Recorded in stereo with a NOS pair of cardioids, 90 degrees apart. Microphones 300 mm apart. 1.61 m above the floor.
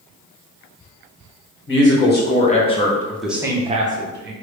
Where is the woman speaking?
40° left, 1.4 m; by 4.3 s 40° right, 1.0 m.